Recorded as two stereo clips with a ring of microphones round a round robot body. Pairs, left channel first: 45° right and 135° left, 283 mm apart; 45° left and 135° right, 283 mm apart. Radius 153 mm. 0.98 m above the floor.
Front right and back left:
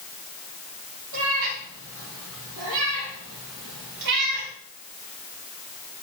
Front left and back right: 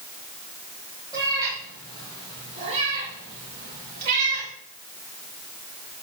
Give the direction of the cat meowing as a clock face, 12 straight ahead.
7 o'clock.